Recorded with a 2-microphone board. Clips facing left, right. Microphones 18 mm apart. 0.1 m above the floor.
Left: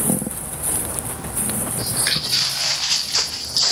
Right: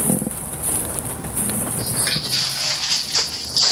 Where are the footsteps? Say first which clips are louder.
Left 2 dB; 15° left (ahead or behind), 2 m; by 3.7 s 5° right (ahead or behind), 1.0 m.